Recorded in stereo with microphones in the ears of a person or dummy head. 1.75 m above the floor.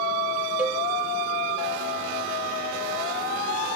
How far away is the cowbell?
About 1.9 m.